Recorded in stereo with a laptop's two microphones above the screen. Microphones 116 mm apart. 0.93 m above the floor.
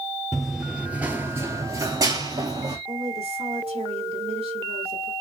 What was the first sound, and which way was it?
Running footsteps, centre (ahead or behind).